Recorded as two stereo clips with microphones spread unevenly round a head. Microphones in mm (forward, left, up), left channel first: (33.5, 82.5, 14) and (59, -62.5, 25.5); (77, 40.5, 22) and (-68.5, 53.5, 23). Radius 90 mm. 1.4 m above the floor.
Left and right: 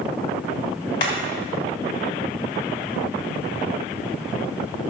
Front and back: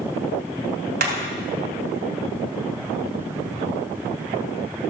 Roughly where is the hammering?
Behind.